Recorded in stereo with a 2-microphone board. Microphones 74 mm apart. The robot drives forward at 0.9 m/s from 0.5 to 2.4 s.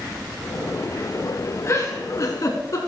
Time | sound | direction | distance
1.7 | a giggle | 40° left (ahead or behind) | 3 m